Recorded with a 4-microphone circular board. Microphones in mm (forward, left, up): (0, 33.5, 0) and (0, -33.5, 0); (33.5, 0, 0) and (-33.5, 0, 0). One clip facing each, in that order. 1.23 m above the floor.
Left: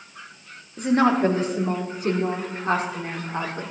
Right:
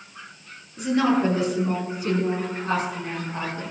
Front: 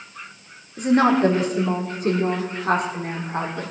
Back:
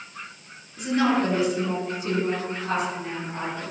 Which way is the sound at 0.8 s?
45° left.